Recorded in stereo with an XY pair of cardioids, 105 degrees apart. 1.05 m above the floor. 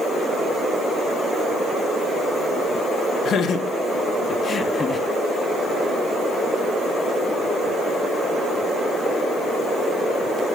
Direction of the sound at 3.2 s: 65° left.